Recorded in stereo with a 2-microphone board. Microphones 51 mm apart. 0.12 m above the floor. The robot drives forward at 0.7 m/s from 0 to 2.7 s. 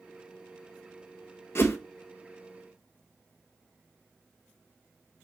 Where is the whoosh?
55° left (ahead or behind), 1.0 m.